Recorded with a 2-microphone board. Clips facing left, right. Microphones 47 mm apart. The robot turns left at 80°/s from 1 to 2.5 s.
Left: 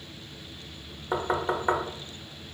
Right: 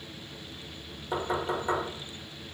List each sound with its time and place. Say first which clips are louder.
1.1 s knocking: left 3 dB; 35° left (ahead or behind), 0.7 m